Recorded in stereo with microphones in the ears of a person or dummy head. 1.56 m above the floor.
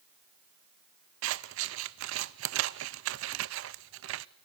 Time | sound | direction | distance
1.2 | scissors | 70° right (ahead or behind) | 0.8 m